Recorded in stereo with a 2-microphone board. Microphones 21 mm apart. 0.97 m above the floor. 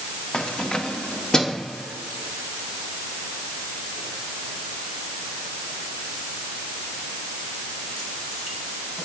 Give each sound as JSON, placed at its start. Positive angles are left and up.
{"t": 0.3, "sound": "keys jangling", "side_deg": 45, "distance_m": 1.1}